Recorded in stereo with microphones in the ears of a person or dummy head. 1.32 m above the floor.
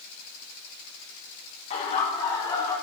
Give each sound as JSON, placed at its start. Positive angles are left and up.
{"t": 1.7, "sound": "laughter", "side_deg": 35, "distance_m": 3.0}